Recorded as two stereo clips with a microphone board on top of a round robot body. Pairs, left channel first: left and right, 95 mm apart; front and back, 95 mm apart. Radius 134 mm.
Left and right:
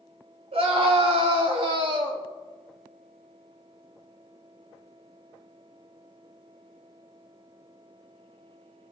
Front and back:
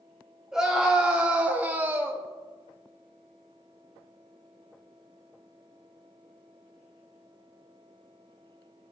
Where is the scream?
95° right, 3.5 m; by 2.2 s 120° right, 2 m.